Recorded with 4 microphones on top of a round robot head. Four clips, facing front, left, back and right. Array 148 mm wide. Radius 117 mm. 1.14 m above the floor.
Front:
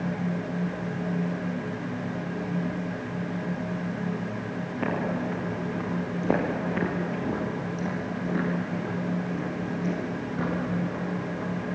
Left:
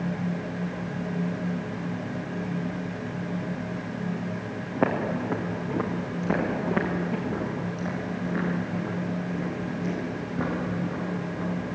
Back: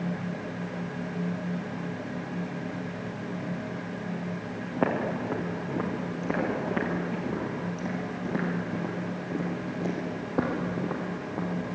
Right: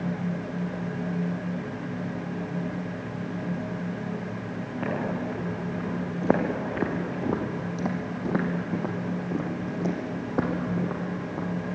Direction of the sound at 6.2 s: 70° right.